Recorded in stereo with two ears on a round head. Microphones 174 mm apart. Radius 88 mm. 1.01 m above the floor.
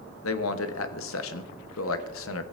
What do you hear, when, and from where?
0.2 s a man speaking: 75° left (ahead or behind), 0.9 m